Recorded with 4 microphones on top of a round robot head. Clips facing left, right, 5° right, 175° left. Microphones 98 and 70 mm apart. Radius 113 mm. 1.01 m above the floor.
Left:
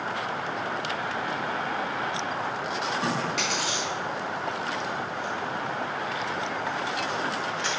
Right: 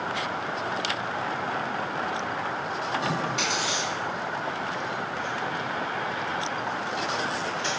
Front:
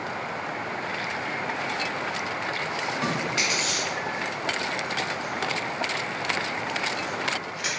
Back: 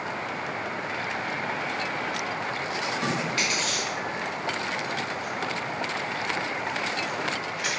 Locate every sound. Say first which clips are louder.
3.0 s chewing: even, front 1 dB; 55° left, 0.9 m